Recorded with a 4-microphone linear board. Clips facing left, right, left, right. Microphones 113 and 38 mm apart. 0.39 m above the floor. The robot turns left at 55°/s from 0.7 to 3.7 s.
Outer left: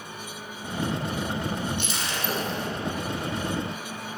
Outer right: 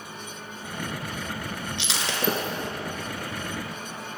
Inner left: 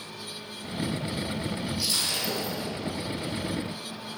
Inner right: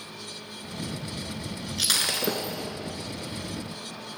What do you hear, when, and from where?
1.8 s breaking glass: 85° right, 1.7 m; by 2.7 s 40° right (ahead or behind), 1.7 m